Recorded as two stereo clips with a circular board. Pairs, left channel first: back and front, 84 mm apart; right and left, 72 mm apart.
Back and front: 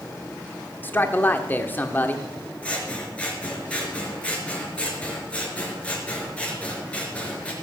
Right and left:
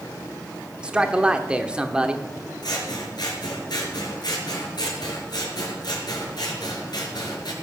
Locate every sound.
0.8 s a man speaking: 150° left, 1.1 m
2.6 s scissors: 105° right, 4 m